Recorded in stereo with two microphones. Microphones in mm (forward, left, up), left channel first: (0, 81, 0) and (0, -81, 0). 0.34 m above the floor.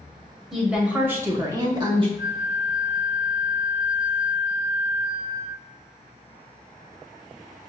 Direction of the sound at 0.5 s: Centre (ahead or behind).